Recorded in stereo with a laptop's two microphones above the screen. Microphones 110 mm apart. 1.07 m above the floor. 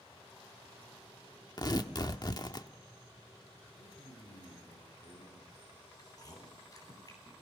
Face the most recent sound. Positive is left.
turn(degrees=35)  # may be behind; listen again after turning